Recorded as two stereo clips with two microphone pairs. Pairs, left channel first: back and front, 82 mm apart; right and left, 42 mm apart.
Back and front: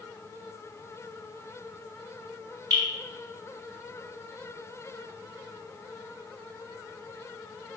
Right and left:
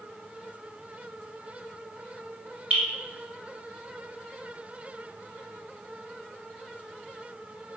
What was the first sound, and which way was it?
Dripping, 25° left.